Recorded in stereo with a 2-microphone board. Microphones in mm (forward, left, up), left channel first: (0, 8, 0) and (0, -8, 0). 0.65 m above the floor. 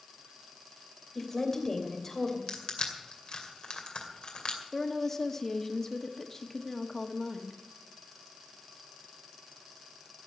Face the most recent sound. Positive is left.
turn(degrees=25)  # may be behind; listen again after turning